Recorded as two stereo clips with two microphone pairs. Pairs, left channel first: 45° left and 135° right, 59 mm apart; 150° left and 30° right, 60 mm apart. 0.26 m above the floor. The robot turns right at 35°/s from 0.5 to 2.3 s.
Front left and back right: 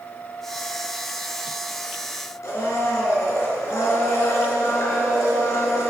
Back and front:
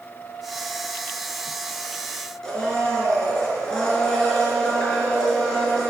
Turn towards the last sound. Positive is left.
turn(degrees=75)